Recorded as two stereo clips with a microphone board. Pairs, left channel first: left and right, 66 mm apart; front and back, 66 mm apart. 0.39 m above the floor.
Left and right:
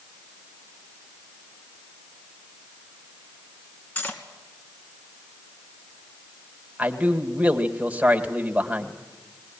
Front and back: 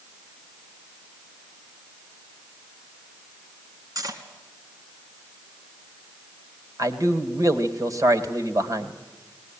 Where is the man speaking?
160° right, 2 m.